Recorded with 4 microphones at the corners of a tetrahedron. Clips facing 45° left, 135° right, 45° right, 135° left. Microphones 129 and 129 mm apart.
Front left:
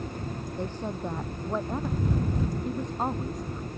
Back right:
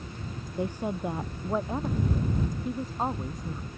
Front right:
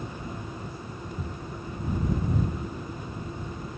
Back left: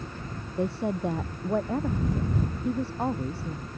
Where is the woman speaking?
145° left; by 3.7 s 135° left.